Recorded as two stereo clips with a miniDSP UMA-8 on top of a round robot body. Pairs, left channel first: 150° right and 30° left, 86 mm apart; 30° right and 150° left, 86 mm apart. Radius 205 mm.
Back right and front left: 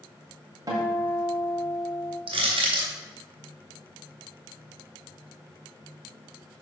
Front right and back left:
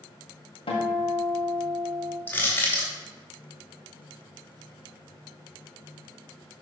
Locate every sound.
0.7 s a guitar: 20° right, 1.5 m
2.3 s crushing: 40° left, 1.7 m